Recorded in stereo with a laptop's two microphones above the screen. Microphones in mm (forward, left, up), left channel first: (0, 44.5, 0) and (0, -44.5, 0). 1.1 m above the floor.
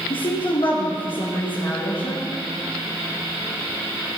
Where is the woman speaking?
65° left (ahead or behind), 0.9 m.